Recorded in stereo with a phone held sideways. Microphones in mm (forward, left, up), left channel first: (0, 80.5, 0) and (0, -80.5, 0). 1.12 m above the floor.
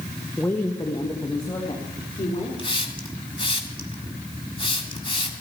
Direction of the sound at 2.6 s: 30° left (ahead or behind).